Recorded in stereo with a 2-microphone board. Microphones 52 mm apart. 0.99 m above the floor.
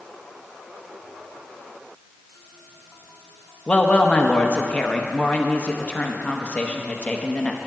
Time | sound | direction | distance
3.7 | a woman speaking | 30° left (ahead or behind) | 0.9 m